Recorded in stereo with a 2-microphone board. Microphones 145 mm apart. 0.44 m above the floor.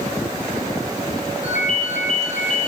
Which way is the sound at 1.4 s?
70° left (ahead or behind).